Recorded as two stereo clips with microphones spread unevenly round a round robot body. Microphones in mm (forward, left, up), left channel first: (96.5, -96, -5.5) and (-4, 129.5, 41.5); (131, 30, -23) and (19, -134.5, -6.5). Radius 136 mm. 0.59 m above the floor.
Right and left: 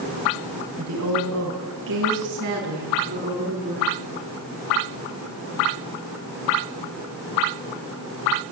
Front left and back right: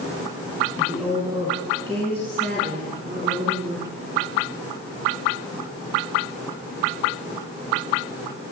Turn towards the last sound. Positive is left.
turn(degrees=175)